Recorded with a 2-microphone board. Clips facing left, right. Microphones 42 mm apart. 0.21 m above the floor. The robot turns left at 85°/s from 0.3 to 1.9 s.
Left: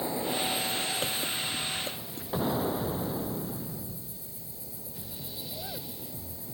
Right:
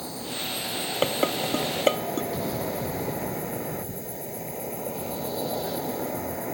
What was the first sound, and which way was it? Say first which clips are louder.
An insect: left 3 dB; 25° left.